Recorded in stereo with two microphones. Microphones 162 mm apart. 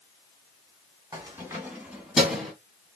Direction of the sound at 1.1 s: 20° right (ahead or behind).